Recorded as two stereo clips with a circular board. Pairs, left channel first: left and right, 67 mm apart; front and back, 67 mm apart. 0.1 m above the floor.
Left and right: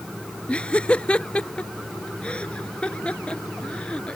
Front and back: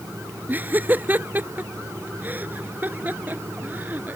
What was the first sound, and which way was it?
Laughter, 150° left.